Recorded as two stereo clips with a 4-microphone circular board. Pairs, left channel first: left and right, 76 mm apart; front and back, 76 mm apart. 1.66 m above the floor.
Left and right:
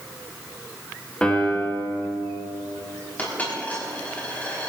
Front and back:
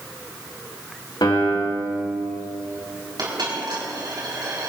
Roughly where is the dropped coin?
Behind.